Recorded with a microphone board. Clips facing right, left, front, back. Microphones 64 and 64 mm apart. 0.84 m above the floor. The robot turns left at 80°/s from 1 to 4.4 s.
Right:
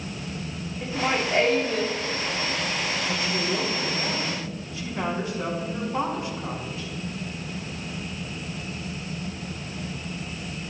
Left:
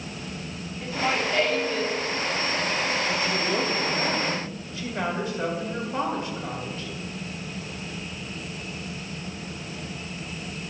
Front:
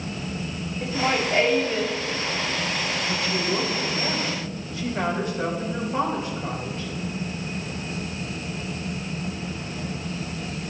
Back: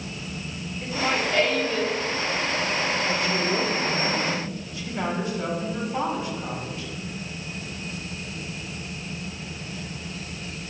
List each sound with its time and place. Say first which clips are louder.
0.8 s laughter: even, front 1 dB; 20° right, 1.4 m; by 2.0 s 95° right, 1.4 m
3.1 s a woman speaking: left 1 dB, back 1 dB; 150° left, 4 m; by 6.9 s 45° left, 4 m